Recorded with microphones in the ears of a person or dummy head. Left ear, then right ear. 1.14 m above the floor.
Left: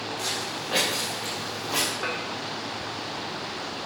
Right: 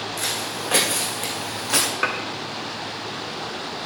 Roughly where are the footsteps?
Right.